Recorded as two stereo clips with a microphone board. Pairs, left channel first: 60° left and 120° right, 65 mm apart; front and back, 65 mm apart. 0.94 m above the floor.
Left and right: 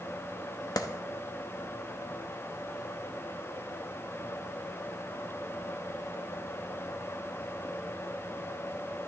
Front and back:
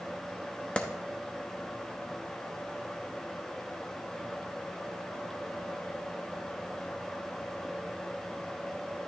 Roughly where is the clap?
Left.